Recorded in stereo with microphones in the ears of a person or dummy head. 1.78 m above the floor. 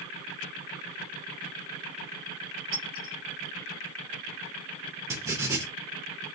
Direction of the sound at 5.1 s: 15° right (ahead or behind).